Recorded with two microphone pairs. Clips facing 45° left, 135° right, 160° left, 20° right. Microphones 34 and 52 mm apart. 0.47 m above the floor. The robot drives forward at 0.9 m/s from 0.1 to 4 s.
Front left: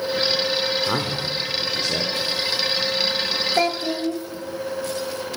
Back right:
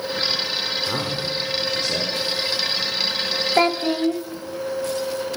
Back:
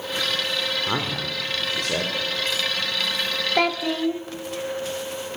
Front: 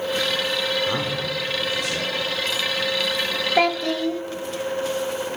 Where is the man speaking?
100° left, 1.5 m; by 2.2 s 145° left, 2.0 m.